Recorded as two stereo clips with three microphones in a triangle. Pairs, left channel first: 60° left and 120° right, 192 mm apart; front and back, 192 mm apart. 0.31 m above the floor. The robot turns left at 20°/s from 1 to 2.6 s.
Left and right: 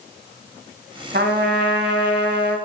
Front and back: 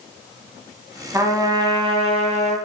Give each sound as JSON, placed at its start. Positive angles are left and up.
{"t": 1.1, "sound": "a trumpet", "azimuth_deg": -105, "distance_m": 1.0}